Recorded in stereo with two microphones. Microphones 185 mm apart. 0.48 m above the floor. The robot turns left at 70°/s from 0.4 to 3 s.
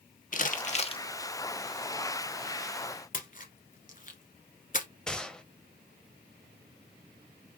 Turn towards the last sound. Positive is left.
turn(degrees=5)  # may be behind; listen again after turning